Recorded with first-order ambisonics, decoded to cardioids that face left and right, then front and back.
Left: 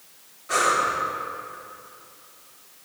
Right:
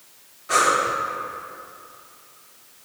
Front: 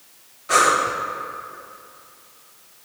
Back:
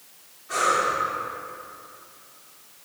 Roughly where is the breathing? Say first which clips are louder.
Right 2 dB, front 5 dB; ahead.